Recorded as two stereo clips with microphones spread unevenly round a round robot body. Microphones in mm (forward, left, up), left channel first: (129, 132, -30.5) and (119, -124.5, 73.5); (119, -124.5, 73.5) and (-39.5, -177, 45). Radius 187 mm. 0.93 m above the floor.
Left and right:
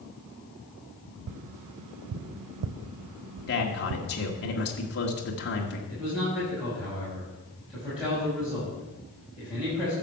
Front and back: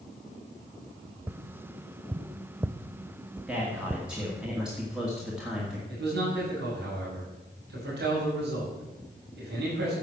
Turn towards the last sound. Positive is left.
turn(degrees=180)